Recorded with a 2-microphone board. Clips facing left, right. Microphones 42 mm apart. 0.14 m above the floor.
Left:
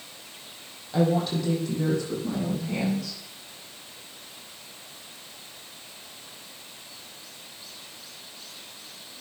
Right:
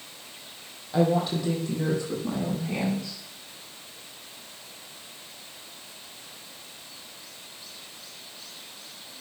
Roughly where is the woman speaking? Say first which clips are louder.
Even; centre.